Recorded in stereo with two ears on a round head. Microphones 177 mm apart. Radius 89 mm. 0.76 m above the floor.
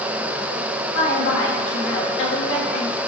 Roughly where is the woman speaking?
Left.